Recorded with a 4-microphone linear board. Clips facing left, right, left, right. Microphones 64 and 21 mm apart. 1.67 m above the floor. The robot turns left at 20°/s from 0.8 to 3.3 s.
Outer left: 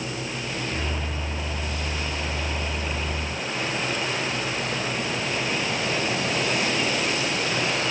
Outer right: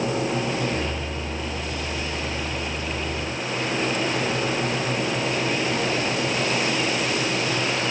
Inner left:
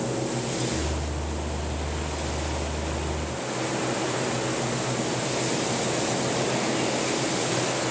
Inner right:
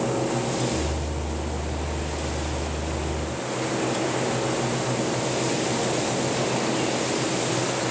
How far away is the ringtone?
I don't hear a ringtone.